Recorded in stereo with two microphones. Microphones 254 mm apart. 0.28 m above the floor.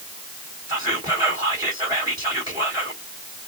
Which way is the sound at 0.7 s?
15° right (ahead or behind).